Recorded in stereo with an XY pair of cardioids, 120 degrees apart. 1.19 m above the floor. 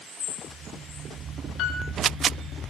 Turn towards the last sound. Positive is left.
turn(degrees=70)